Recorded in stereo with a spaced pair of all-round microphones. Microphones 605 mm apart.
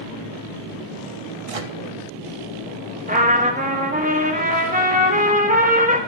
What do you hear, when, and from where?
1.5 s a microwave: 65° right (ahead or behind), 0.9 m
3.1 s a trumpet: 15° right (ahead or behind), 1.5 m